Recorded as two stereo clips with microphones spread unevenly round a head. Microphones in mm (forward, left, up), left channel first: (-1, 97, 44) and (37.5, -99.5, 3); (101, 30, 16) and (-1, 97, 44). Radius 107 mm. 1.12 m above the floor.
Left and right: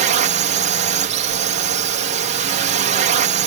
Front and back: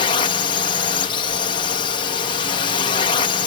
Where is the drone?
50° right.